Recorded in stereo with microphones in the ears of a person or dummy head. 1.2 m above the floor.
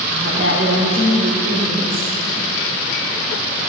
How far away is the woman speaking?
About 4.5 m.